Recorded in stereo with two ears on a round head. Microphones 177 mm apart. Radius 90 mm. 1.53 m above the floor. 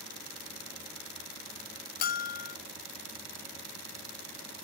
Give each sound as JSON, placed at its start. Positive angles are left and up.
{"t": 2.0, "sound": "a bell", "side_deg": 40, "distance_m": 0.7}